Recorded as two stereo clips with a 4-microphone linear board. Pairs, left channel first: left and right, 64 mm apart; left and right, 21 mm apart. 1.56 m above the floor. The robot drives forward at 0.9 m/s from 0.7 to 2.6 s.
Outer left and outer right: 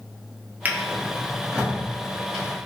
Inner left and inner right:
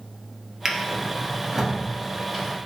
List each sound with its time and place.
0.7 s a drawer: 25° right (ahead or behind), 0.7 m; by 2.5 s 10° right (ahead or behind), 2 m